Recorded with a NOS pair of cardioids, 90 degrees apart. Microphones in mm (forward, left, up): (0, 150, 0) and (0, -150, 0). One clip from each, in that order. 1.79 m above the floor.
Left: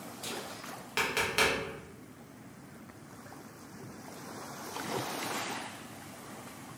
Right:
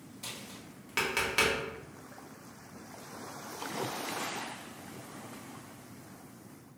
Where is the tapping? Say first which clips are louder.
Left 3 dB; 5° right, 1.1 m.